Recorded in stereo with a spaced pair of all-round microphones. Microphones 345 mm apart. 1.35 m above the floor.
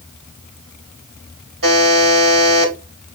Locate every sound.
1.6 s a buzzer: 75° right (ahead or behind), 2.5 m